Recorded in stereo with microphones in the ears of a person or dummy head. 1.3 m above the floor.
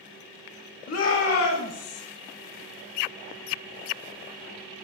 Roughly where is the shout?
Left.